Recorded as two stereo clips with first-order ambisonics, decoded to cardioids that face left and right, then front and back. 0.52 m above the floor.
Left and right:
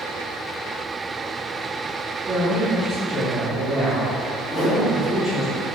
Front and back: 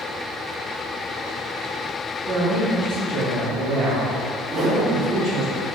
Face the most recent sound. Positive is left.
turn(degrees=120)